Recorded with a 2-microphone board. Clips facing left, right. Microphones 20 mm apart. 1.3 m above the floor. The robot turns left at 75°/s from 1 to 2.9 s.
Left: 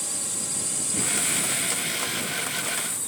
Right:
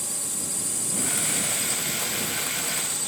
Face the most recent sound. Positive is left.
turn(degrees=-135)